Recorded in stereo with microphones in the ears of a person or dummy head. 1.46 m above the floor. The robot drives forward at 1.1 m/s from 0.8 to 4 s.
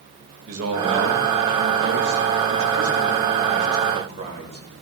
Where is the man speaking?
75° right (ahead or behind), 2.0 m; by 4.8 s 35° right (ahead or behind), 3.5 m.